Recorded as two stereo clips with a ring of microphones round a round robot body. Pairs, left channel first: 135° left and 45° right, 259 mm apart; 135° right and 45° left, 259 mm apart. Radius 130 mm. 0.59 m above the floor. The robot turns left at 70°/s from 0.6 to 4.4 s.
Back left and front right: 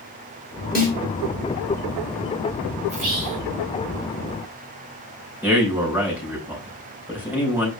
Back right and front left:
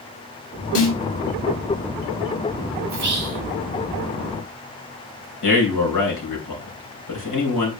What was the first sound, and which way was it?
A snare drum, 170° right.